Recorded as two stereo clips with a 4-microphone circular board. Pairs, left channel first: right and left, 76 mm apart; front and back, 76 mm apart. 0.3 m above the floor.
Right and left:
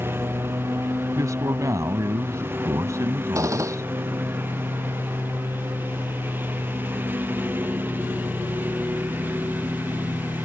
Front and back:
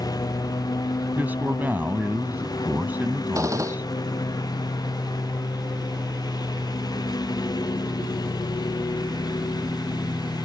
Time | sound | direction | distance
0.0 | a lawn mower | 30° left | ?
1.1 | a man speaking | 120° left | ?
3.4 | a gunshot | 135° left | ?